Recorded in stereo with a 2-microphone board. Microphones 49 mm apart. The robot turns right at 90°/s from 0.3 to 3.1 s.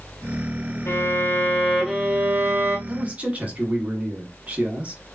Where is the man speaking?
30° right (ahead or behind), 1.8 m.